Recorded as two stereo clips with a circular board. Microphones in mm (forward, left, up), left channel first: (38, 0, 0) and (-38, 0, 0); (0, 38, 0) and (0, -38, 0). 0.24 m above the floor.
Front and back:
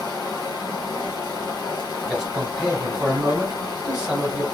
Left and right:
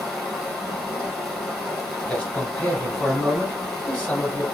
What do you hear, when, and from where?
0.0 s running water: 5° left, 1.9 m
2.1 s a man speaking: 120° left, 1.1 m